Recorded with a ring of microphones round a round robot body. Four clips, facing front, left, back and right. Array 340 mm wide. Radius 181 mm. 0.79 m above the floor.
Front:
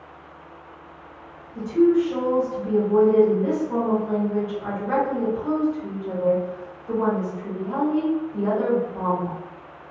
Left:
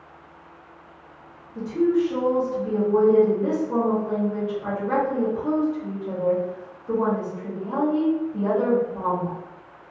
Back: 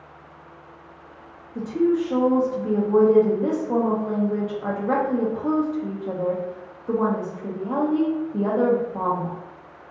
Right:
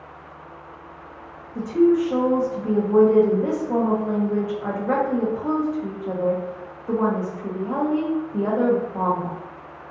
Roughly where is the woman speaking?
Behind right.